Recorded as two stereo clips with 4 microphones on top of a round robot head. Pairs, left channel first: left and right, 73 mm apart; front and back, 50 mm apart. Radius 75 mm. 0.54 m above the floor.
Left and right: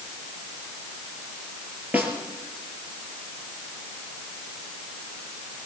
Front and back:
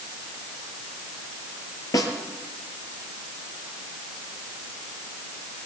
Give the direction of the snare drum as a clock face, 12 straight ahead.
1 o'clock.